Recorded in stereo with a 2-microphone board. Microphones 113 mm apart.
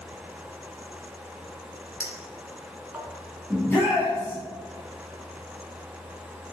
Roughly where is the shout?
Centre.